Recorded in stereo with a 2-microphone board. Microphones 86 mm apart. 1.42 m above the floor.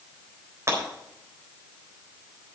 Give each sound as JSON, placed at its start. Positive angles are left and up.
{"t": 0.7, "sound": "breaking glass", "side_deg": -35, "distance_m": 3.5}